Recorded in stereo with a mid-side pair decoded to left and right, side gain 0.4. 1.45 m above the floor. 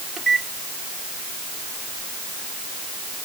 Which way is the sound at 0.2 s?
30° right.